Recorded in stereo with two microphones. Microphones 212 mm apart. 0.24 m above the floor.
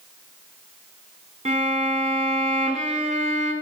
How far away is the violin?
About 2 m.